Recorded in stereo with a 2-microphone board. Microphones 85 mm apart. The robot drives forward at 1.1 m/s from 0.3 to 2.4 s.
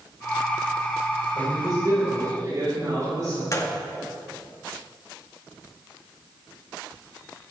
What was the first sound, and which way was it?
A man speaking, 50° right (ahead or behind).